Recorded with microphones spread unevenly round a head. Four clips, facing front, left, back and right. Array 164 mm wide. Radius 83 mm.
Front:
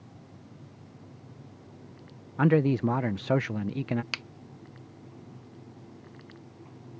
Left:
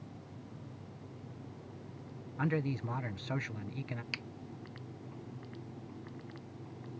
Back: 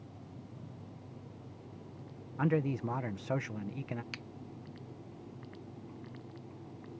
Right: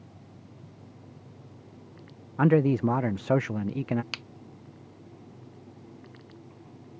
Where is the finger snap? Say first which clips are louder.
Right 2 dB, front 6 dB; 25° right.